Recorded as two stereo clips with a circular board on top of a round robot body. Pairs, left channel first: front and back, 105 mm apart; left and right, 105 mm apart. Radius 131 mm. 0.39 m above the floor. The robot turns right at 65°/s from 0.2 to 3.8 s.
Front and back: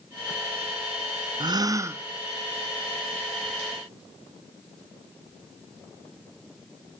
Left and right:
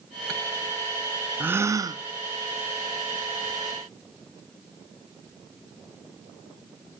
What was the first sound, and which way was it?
A gasp, 160° right.